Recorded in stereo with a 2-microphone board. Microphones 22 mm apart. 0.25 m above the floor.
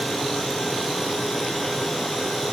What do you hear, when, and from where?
Only background noise.